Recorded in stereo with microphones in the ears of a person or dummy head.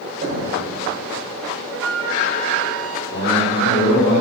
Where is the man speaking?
50° left (ahead or behind), 5 m.